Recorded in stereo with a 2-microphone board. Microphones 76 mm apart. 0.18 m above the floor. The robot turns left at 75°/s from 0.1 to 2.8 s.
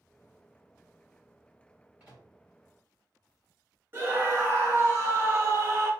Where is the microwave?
15° right (ahead or behind), 1.5 m; by 2.3 s 25° right (ahead or behind), 1.5 m.